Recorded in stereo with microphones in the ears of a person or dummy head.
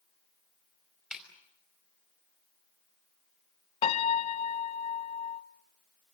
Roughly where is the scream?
I don't hear a scream.